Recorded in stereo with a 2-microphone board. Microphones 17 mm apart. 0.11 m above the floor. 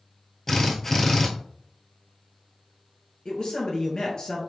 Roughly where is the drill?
Left.